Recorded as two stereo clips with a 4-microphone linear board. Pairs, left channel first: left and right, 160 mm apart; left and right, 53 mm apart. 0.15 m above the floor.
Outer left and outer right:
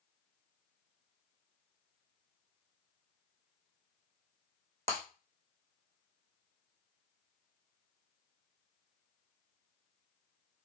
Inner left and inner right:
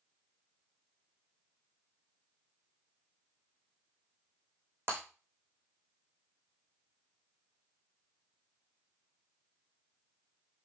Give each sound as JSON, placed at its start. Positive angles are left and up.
{"t": 4.9, "sound": "breaking glass", "side_deg": -40, "distance_m": 4.0}